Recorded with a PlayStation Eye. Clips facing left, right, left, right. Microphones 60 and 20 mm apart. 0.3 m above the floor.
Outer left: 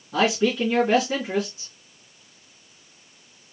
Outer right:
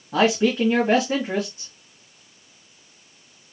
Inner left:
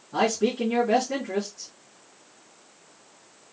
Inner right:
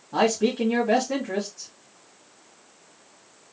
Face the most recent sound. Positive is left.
turn(degrees=-40)  # may be behind; listen again after turning